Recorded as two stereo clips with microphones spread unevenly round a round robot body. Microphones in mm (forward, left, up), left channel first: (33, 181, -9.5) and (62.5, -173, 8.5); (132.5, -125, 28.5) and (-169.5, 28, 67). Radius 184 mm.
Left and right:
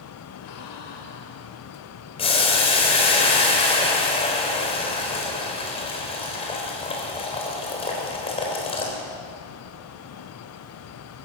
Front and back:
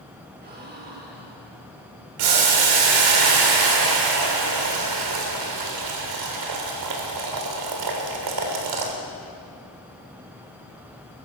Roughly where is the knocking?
No knocking in this recording.